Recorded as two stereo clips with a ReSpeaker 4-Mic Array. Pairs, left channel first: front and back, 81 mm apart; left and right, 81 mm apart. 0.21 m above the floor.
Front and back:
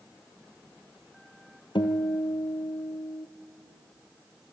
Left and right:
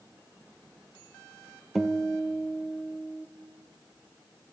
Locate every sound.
1.8 s a guitar: straight ahead, 1.7 m